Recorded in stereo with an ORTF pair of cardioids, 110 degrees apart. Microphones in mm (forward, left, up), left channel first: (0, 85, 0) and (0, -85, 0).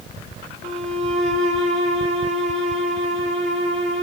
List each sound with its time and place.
0.6 s a violin: 60° left, 3.5 m